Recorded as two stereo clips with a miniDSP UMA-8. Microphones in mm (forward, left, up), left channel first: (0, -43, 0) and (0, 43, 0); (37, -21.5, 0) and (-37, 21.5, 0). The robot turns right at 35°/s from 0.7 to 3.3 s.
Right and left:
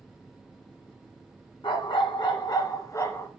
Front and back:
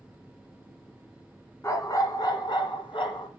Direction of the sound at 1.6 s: 85° right.